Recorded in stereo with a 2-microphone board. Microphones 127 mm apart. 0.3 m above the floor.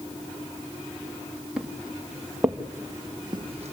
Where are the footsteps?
5° right (ahead or behind), 3.5 m; by 3.7 s 60° right (ahead or behind), 0.9 m.